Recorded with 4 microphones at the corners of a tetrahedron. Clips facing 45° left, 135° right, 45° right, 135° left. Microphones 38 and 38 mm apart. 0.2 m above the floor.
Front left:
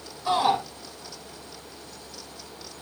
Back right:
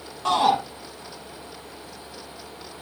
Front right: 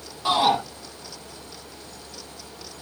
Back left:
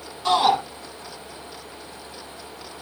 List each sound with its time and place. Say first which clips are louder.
0.2 s a shout: back right 3 dB, back left 2 dB; 125° right, 8 m